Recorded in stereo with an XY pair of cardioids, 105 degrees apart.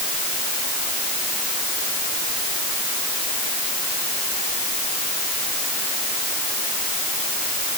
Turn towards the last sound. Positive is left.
No sound to turn to.